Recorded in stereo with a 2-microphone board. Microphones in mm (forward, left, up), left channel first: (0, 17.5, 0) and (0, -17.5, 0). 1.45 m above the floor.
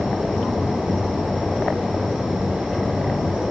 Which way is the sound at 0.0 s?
5° left (ahead or behind).